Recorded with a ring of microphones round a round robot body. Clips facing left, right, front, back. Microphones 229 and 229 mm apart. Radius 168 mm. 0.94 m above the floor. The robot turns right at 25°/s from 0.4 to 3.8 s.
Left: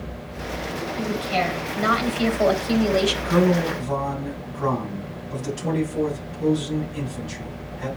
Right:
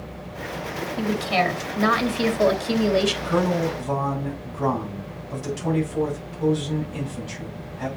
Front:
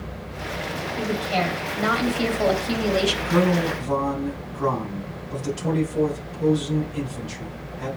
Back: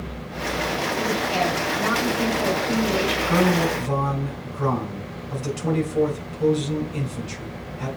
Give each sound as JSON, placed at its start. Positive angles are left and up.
{"t": 1.0, "sound": "a woman speaking", "azimuth_deg": -85, "distance_m": 1.8}
{"t": 3.2, "sound": "a man speaking", "azimuth_deg": -150, "distance_m": 4.5}